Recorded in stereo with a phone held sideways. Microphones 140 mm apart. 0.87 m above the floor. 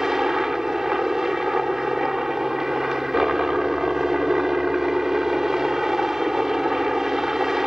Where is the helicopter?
5° right (ahead or behind).